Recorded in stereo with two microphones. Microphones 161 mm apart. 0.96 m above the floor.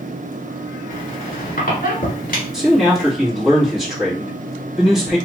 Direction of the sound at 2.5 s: 5° right (ahead or behind).